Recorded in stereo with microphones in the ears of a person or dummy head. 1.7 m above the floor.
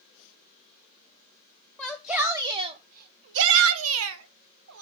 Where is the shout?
5° left (ahead or behind), 0.9 m; by 4.8 s 75° right (ahead or behind), 1.4 m.